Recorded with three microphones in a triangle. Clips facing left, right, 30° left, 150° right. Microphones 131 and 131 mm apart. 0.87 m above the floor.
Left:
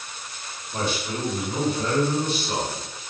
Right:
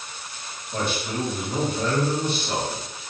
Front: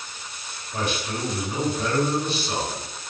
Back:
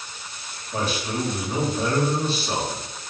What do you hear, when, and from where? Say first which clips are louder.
0.7 s a man speaking: right 1 dB, back 2 dB; 100° right, 1.7 m